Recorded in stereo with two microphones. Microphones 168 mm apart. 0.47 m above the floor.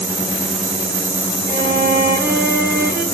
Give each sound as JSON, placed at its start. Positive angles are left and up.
{"t": 1.5, "sound": "a violin", "side_deg": -70, "distance_m": 2.5}